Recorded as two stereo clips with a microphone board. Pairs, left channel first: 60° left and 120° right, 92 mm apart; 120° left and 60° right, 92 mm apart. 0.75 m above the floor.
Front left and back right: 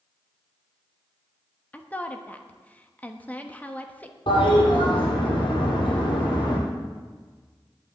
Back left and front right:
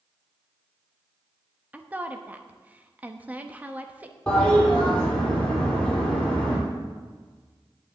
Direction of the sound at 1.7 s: Straight ahead.